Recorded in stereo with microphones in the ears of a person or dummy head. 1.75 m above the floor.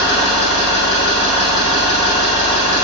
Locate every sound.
0.0 s an engine running: 15° left (ahead or behind), 0.8 m